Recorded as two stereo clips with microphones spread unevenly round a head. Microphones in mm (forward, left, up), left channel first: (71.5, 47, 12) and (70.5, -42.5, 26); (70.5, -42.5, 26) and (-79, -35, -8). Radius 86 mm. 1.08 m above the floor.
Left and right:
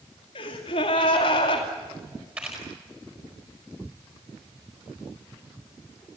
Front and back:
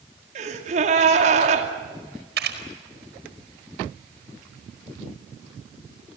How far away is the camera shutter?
About 4.5 m.